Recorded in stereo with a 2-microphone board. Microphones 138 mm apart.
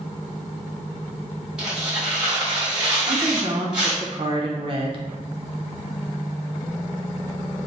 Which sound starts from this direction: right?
A woman speaking, at 3.1 s.